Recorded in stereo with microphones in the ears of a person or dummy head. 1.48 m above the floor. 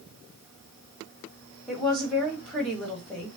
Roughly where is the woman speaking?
Centre.